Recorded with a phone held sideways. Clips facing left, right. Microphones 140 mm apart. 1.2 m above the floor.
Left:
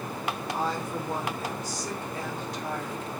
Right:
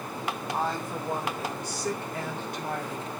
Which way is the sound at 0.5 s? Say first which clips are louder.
Even; 55° right (ahead or behind).